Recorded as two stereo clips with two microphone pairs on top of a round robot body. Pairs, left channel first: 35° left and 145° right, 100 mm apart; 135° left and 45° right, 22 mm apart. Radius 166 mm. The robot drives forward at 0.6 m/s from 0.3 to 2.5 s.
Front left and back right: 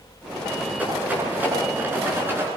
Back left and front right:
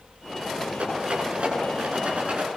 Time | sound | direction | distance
0.8 | a rattle | 70° right | 10 m